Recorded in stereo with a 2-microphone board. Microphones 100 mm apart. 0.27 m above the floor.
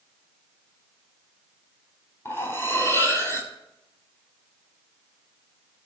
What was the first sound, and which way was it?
Cutlery clinking, 25° left (ahead or behind).